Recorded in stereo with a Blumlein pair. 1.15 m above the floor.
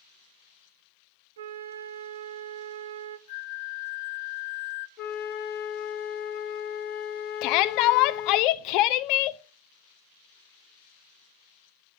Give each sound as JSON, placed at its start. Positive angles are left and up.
{"t": 1.4, "sound": "a flute", "azimuth_deg": -60, "distance_m": 0.6}
{"t": 3.3, "sound": "a flute", "azimuth_deg": 50, "distance_m": 0.8}
{"t": 5.0, "sound": "a flute", "azimuth_deg": 30, "distance_m": 1.6}
{"t": 7.4, "sound": "a shout", "azimuth_deg": 40, "distance_m": 0.5}